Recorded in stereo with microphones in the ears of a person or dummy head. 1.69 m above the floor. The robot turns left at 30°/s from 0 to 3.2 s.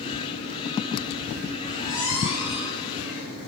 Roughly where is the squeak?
Behind.